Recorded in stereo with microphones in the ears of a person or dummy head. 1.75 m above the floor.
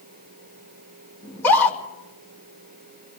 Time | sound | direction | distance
1.2 | a scream | 10° left (ahead or behind) | 4 m